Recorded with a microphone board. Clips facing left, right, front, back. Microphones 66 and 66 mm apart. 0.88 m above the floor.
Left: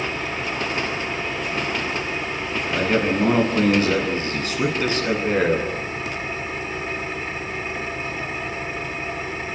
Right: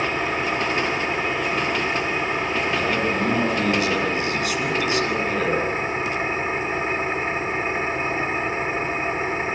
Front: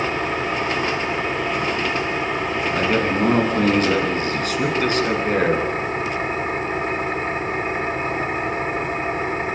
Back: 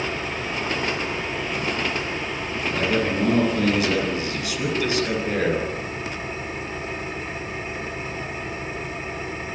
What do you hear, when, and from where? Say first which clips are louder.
0.0 s an engine running: right 3 dB, front 5 dB; 35° right, 2 m
2.7 s a man speaking: left 6 dB, front 1 dB; 40° left, 9 m